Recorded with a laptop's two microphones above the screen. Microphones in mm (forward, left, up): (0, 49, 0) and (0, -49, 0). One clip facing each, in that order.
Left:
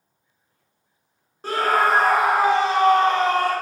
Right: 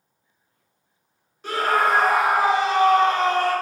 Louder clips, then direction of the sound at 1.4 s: Left 1 dB; 40° left (ahead or behind).